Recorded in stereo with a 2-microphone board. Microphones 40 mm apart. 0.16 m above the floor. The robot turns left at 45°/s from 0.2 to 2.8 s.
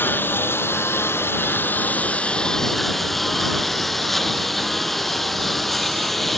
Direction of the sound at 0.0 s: 120° left.